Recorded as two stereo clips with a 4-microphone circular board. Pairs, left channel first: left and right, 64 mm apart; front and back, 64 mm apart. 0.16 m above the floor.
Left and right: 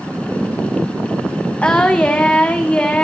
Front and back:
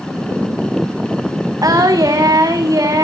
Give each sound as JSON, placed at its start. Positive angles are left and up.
{"t": 1.6, "sound": "singing", "azimuth_deg": 160, "distance_m": 1.7}